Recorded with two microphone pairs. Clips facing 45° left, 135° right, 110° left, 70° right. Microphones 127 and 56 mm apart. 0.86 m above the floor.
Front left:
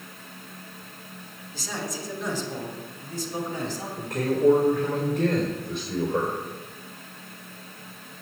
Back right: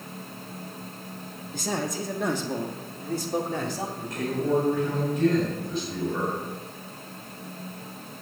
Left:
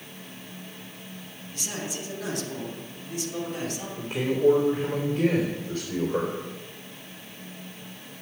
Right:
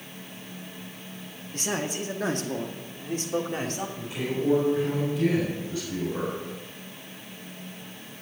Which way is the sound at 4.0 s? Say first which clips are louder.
Front left 9 dB, left 7 dB; 85° left.